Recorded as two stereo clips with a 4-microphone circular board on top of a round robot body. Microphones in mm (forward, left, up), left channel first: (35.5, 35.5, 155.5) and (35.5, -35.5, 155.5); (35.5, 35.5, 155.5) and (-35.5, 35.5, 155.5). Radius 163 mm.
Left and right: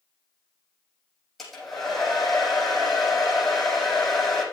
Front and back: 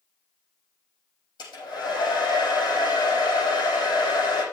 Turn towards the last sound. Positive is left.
turn(degrees=5)